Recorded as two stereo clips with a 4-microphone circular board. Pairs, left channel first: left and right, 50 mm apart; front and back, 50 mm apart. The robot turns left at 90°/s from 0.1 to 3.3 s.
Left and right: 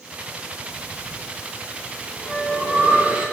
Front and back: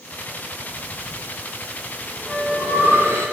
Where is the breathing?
65° left, 3 m; by 3.3 s 165° right, 3 m.